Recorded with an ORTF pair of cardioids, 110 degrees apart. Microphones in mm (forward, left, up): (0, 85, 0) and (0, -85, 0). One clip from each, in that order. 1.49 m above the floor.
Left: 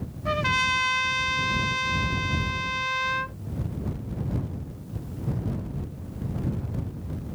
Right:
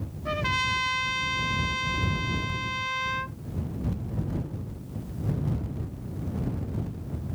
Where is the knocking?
I don't hear knocking.